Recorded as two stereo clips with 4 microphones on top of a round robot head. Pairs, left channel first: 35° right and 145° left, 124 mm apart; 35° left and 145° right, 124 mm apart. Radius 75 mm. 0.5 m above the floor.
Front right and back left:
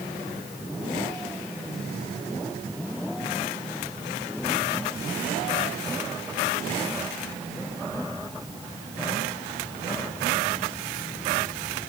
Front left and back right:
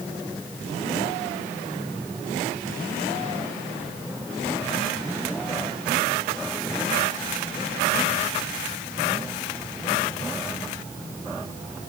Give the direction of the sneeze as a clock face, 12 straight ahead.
No sneeze in this recording.